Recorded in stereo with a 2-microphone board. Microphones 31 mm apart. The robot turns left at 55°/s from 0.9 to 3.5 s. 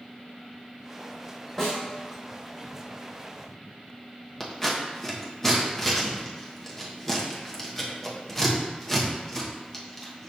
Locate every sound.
1.6 s a snare drum: 5° left (ahead or behind), 1.1 m; by 1.8 s 15° left (ahead or behind), 1.1 m
4.4 s scissors: 10° left (ahead or behind), 0.7 m